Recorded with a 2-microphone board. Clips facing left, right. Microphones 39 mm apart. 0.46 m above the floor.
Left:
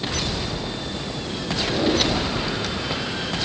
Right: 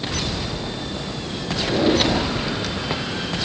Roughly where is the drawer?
Centre.